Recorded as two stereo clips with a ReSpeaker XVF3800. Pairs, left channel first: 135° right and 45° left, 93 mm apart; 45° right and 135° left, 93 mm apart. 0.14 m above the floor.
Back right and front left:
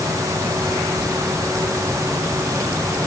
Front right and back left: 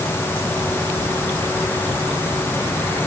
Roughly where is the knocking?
No knocking in this recording.